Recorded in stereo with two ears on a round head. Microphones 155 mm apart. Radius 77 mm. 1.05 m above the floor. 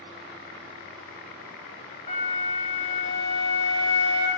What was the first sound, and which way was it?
A flute, 45° left (ahead or behind).